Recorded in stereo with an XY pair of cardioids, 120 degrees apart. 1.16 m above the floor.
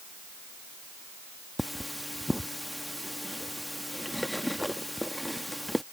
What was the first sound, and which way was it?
Cutlery clinking, straight ahead.